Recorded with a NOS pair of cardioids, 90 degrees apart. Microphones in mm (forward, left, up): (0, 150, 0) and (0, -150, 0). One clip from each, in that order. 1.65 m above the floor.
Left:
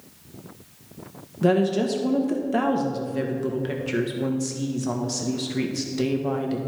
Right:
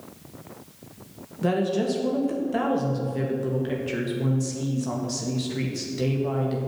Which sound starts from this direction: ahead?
A woman speaking, at 1.4 s.